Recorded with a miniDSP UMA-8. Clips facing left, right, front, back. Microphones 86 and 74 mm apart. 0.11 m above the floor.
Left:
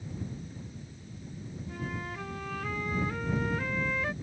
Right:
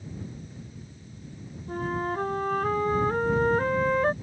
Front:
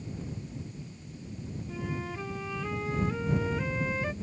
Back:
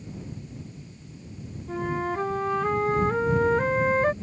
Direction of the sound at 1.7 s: 140° right.